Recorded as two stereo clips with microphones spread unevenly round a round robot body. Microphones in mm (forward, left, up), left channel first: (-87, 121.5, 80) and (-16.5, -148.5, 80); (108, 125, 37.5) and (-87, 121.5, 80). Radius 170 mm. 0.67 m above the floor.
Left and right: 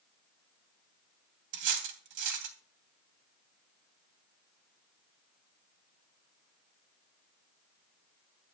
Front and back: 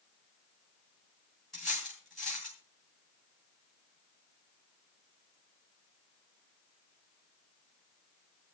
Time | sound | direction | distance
1.5 | cutlery clinking | 85° right | 3 m